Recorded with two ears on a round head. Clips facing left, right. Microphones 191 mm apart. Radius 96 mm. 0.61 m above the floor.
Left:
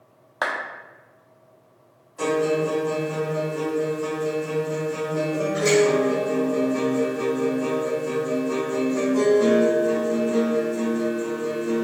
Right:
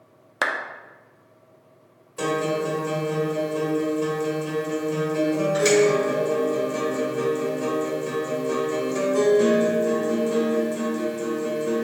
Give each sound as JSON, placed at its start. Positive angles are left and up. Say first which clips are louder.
{"t": 0.4, "sound": "a clap", "louder": "even", "side_deg": -35, "distance_m": 0.5}
{"t": 2.2, "sound": "a guitar", "louder": "left 3 dB", "side_deg": -70, "distance_m": 1.6}